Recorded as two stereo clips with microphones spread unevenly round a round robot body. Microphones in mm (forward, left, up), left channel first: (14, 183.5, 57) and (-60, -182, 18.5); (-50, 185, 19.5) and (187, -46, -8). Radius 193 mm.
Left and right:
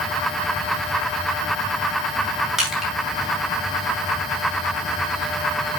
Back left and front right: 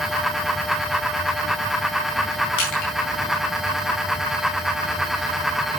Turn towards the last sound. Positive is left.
turn(degrees=170)